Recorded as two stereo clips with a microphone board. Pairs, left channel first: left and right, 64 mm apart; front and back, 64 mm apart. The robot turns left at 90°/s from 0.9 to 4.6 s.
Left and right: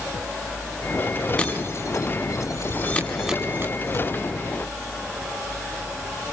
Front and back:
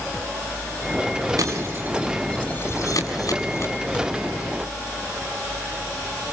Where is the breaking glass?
165° left, 7 m; by 4.1 s 75° right, 7 m.